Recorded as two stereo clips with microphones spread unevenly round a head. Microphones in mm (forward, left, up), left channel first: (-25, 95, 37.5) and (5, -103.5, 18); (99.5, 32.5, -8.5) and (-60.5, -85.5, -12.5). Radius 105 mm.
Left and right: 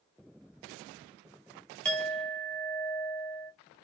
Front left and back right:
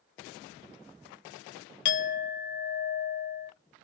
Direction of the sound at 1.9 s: 15° left.